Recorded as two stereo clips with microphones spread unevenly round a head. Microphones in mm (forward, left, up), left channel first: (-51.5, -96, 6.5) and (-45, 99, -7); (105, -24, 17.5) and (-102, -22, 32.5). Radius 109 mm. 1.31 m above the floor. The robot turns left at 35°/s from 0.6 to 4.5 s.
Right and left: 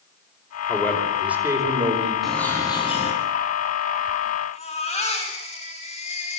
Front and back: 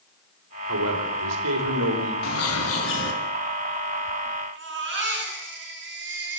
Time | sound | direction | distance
0.7 | a man speaking | 165° right | 5.5 m
2.2 | a bird | 5° right | 3.5 m
4.5 | a baby crying | 150° right | 9.5 m